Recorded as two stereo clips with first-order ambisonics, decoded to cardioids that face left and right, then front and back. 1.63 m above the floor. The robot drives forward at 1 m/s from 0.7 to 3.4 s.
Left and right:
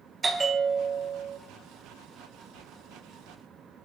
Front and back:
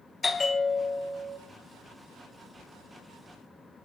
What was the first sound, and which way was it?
A bell, 45° right.